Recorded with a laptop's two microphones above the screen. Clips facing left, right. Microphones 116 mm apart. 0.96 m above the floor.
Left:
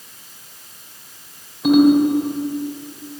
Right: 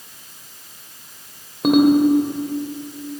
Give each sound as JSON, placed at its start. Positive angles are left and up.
{"t": 1.6, "sound": "a ringtone", "side_deg": -55, "distance_m": 2.5}